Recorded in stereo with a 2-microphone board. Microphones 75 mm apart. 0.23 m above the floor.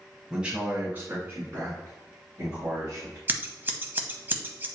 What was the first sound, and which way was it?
A man speaking, 10° right (ahead or behind).